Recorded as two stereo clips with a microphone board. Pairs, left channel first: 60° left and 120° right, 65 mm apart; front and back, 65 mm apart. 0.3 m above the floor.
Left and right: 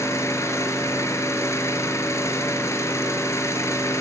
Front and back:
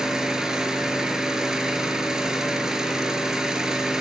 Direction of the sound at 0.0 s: 100° left.